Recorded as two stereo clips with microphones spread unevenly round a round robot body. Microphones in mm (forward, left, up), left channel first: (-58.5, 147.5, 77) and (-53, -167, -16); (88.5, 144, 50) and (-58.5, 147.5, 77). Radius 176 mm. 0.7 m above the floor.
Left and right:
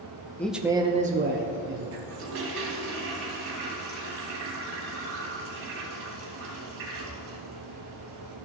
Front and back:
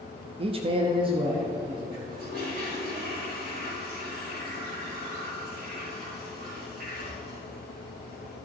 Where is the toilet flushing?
135° right, 3 m.